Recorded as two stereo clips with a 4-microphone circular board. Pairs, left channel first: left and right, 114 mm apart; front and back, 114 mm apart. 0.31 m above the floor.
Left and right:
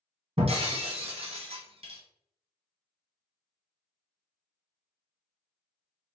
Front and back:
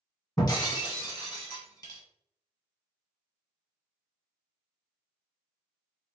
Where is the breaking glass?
55° right, 1.5 m.